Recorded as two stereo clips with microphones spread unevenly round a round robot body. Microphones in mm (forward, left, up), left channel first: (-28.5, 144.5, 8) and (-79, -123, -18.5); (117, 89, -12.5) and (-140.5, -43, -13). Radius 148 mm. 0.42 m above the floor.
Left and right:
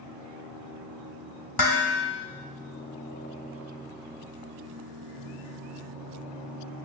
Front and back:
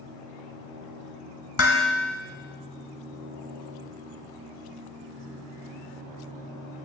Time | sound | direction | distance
1.6 | dishes clattering | 65° left | 1.6 m